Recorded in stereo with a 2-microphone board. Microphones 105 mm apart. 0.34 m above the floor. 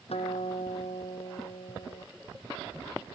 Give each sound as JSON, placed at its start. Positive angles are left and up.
{"t": 0.1, "sound": "a guitar", "side_deg": 75}